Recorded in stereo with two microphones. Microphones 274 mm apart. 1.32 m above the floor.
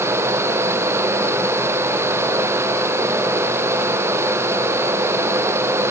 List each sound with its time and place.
Only background noise.